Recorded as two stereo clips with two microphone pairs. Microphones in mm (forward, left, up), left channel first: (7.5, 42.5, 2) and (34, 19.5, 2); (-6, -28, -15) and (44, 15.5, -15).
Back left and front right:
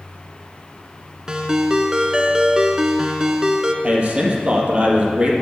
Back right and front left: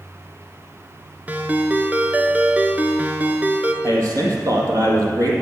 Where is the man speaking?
15° left, 3 m.